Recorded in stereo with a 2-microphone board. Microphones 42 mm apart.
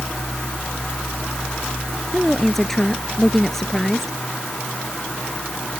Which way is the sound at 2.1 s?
10° left (ahead or behind).